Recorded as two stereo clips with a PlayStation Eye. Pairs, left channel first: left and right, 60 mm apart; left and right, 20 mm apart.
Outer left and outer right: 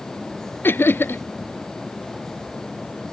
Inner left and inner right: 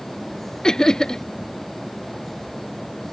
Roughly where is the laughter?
Left.